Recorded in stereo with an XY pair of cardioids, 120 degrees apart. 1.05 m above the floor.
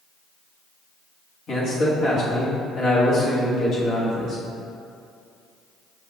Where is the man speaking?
55° left, 1.3 m.